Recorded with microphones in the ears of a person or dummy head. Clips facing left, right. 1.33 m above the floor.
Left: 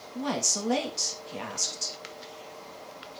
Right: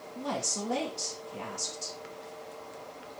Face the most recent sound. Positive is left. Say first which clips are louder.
# left 3 dB
turn(degrees=75)  # may be behind; listen again after turning